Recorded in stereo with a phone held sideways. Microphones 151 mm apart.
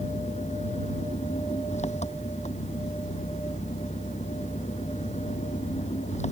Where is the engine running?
50° left (ahead or behind).